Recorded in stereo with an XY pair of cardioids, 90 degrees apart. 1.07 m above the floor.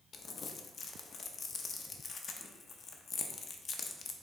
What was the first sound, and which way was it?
Crumpling, 55° left.